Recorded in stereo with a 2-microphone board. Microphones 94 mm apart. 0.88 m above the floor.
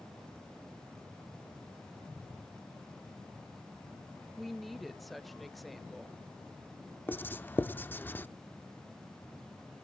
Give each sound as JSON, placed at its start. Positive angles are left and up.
{"t": 4.4, "sound": "a woman speaking", "side_deg": 0, "distance_m": 0.8}
{"t": 7.1, "sound": "writing", "side_deg": 20, "distance_m": 0.5}